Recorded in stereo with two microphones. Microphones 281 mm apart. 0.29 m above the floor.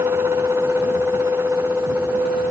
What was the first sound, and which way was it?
Only background noise.